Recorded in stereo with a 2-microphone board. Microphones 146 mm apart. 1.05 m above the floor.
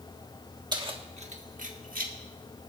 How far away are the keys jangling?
About 1.6 m.